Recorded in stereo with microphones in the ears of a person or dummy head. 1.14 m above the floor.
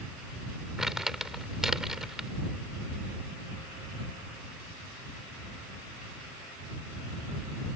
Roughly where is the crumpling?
Centre.